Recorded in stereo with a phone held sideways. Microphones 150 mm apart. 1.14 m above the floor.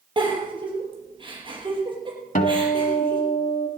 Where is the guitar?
65° left (ahead or behind), 1.6 m.